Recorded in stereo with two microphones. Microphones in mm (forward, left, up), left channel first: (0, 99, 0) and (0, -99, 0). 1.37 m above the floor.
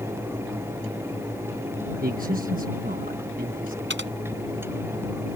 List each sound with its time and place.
2.0 s a man speaking: 45° right (ahead or behind)
3.9 s typing on a keyboard: 70° right (ahead or behind)